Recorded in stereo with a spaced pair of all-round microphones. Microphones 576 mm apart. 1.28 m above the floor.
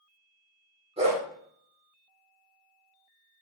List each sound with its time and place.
1.0 s a dog barking: 10° right (ahead or behind), 1.2 m